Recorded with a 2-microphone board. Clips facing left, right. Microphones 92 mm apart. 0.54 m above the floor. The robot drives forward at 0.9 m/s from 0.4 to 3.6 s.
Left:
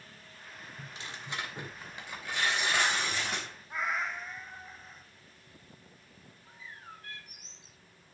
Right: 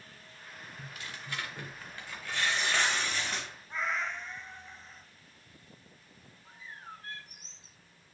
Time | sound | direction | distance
0.8 | tearing paper | 25° left (ahead or behind) | 1.6 m
3.7 | a cat meowing | 10° left (ahead or behind) | 1.4 m
6.5 | a bird | 35° right (ahead or behind) | 1.7 m